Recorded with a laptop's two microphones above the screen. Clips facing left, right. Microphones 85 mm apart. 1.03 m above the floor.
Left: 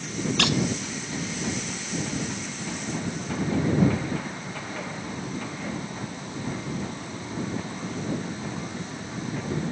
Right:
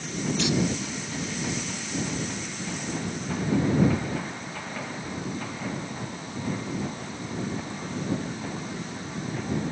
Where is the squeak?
75° left (ahead or behind).